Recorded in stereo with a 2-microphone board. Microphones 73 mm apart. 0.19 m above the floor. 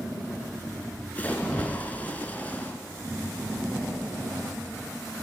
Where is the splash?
20° left (ahead or behind), 1.8 m.